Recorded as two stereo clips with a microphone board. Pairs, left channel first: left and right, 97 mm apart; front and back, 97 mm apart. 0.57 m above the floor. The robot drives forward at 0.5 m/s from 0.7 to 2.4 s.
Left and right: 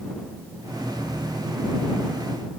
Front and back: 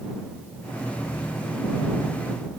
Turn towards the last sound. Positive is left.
No sound to turn to.